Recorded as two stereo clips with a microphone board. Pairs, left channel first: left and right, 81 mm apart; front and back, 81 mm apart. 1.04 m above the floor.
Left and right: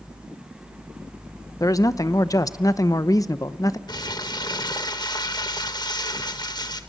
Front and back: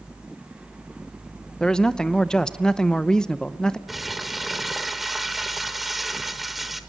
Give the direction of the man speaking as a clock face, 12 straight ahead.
9 o'clock.